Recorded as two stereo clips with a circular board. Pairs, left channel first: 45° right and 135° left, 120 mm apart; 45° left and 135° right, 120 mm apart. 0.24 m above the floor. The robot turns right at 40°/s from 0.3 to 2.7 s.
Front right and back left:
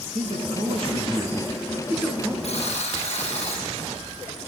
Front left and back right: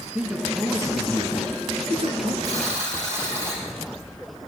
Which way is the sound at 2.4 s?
75° right.